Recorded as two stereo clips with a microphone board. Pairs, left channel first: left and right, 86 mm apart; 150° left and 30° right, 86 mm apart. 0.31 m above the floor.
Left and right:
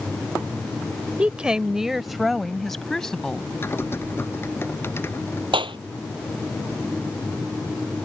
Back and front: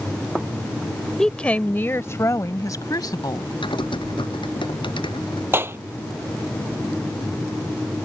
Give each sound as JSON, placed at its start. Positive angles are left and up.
{"t": 1.2, "sound": "a woman speaking", "azimuth_deg": -135}
{"t": 3.6, "sound": "typing on a keyboard", "azimuth_deg": 150}
{"t": 5.5, "sound": "a clap", "azimuth_deg": -90}